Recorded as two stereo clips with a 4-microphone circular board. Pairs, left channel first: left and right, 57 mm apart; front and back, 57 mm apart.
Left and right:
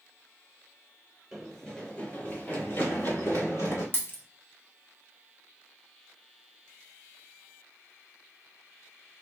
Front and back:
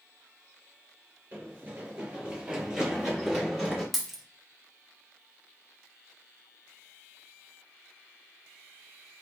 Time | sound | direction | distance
1.3 | running footsteps | straight behind | 1.6 m
3.9 | a dropped coin | 90° left | 0.8 m